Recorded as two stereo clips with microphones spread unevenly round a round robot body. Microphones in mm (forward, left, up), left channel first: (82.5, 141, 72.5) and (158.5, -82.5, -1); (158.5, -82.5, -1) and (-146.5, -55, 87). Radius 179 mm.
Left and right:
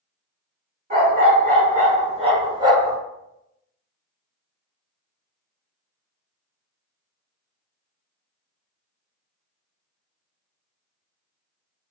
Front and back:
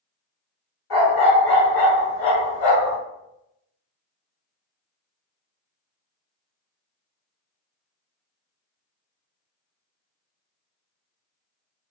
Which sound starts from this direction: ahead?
A dog barking, at 0.9 s.